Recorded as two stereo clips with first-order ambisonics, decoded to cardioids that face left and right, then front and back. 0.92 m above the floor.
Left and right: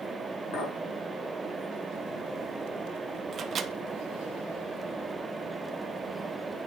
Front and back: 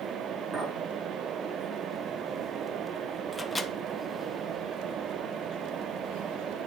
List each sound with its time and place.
0.5 s a clink: 100° left, 2.5 m
3.3 s a microwave: 70° right, 0.6 m